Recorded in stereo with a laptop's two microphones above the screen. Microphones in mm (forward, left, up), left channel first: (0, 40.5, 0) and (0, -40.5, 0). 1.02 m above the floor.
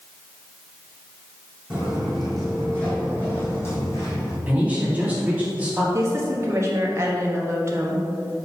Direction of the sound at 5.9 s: 35° right (ahead or behind).